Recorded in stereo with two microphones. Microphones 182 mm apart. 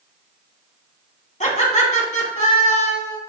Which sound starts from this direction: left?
Laughter, at 1.4 s.